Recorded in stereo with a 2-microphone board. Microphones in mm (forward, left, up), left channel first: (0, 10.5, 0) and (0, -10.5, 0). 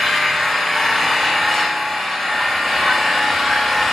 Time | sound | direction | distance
0.0 | an engine running | 15° left (ahead or behind) | 9.5 m